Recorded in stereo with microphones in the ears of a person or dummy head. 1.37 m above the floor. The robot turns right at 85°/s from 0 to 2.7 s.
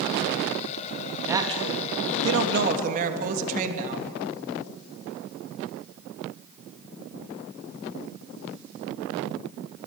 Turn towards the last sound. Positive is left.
turn(degrees=-50)